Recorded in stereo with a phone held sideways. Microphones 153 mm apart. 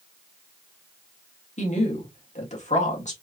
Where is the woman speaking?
50° left (ahead or behind), 2 m.